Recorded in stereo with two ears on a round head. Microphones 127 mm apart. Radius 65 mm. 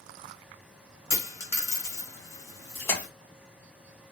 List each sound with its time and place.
1.1 s a dropped coin: 25° left (ahead or behind), 1.8 m
2.8 s a splash: 15° left (ahead or behind), 1.9 m